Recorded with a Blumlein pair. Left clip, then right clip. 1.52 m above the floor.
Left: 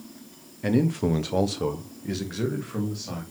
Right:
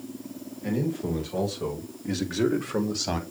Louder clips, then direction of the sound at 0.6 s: Left 5 dB; 60° left.